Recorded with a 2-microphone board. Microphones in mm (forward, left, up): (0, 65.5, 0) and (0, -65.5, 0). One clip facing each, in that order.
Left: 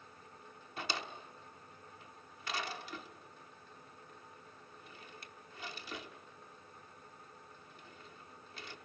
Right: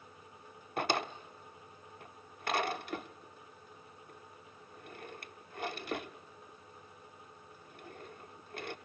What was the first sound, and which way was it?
A drawer, 55° right (ahead or behind).